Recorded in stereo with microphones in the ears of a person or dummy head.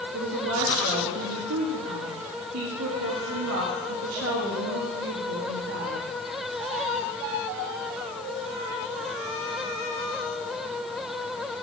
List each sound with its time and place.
0.1 s a woman speaking: 75° right (ahead or behind), 2.5 m